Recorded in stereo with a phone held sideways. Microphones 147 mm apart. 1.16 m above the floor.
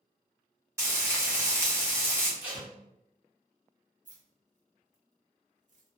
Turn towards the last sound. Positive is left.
turn(degrees=-55)  # may be behind; listen again after turning